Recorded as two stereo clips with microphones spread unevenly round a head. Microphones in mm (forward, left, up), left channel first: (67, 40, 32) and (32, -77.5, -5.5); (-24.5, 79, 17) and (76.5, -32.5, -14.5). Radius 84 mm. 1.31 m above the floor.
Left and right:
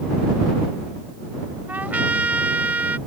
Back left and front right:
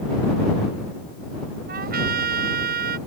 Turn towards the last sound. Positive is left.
turn(degrees=-25)